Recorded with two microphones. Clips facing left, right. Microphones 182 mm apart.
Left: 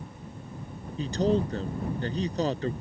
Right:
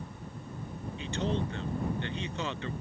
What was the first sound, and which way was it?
A man speaking, 40° left (ahead or behind).